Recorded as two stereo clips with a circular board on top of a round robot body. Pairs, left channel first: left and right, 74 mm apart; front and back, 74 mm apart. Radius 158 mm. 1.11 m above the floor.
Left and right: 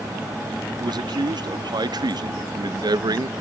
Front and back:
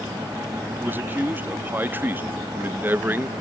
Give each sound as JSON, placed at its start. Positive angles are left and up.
{"t": 0.8, "sound": "a man speaking", "azimuth_deg": -115}